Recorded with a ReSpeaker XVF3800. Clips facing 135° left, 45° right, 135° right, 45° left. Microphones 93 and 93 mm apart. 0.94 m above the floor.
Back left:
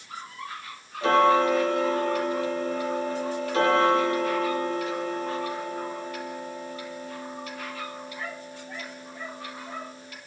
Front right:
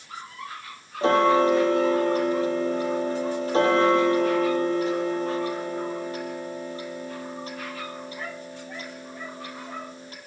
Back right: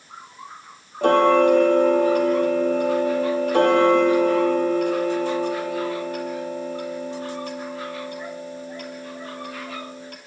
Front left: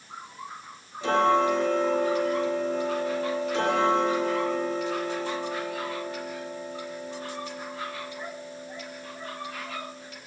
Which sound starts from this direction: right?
Ticking, at 1.0 s.